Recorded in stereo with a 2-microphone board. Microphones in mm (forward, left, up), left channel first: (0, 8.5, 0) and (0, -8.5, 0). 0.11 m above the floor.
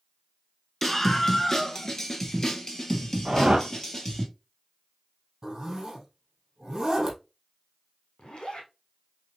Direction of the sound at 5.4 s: 40° right (ahead or behind).